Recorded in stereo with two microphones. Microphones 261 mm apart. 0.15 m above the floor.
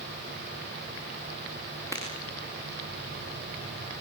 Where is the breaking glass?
10° left (ahead or behind), 9 m.